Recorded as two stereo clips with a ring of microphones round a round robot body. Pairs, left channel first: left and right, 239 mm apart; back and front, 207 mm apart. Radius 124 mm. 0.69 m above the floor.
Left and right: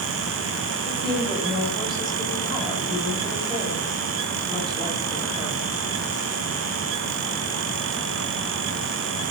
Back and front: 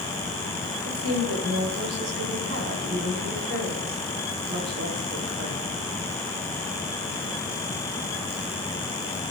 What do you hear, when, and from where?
0.8 s a woman speaking: 20° right, 4 m